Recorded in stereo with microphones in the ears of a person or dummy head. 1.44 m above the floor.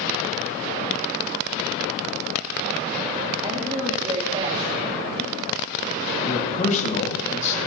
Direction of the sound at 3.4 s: 25° right (ahead or behind).